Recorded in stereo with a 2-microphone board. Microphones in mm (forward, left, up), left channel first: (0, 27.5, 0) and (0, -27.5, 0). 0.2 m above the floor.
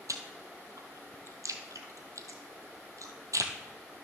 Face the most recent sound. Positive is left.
turn(degrees=-75)  # may be behind; listen again after turning